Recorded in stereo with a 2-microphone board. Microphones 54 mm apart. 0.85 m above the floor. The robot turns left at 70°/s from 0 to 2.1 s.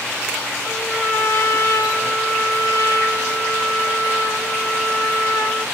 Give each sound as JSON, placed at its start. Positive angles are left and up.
{"t": 0.6, "sound": "a trumpet", "azimuth_deg": 170, "distance_m": 2.0}